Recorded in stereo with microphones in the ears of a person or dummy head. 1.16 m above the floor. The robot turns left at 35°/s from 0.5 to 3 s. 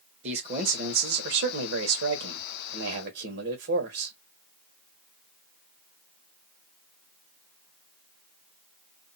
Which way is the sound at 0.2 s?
40° right.